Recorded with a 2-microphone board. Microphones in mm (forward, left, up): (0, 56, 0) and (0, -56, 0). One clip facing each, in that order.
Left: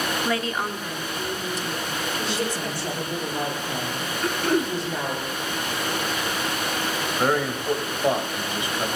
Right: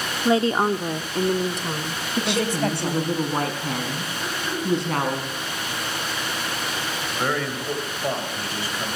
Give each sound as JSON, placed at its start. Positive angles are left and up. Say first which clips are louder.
{"t": 0.2, "sound": "a woman speaking", "louder": "right 7 dB", "side_deg": -15, "distance_m": 0.6}
{"t": 2.2, "sound": "a woman speaking", "louder": "right 7 dB", "side_deg": -75, "distance_m": 5.0}
{"t": 4.2, "sound": "throat clearing", "louder": "left 6 dB", "side_deg": 75, "distance_m": 2.5}
{"t": 7.1, "sound": "a man speaking", "louder": "left 3 dB", "side_deg": 20, "distance_m": 3.0}